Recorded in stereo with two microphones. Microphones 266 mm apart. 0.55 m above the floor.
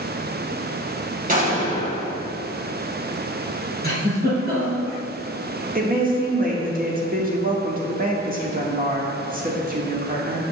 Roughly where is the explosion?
Right.